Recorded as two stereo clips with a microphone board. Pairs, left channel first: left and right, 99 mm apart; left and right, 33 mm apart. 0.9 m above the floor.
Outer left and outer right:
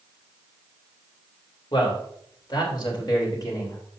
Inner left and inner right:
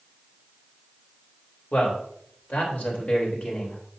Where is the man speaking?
60° left (ahead or behind), 3.5 m; by 3.8 s 40° left (ahead or behind), 3 m.